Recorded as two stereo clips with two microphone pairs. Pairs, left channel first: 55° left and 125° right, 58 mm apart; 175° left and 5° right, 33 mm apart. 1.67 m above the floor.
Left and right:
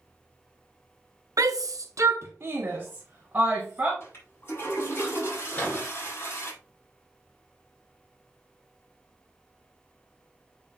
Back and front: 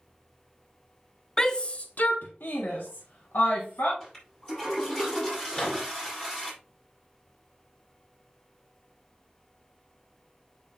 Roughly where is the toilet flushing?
Left.